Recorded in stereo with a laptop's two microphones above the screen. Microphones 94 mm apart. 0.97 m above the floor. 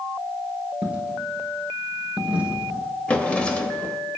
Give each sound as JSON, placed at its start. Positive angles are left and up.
{"t": 0.8, "sound": "a dropped coin", "side_deg": -20, "distance_m": 1.7}
{"t": 3.1, "sound": "a drawer", "side_deg": 15, "distance_m": 0.9}